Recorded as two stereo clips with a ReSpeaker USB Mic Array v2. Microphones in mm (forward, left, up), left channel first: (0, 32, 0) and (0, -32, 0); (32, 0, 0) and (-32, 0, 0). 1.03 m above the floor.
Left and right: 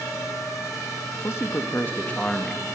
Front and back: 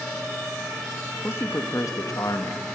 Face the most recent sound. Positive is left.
turn(degrees=5)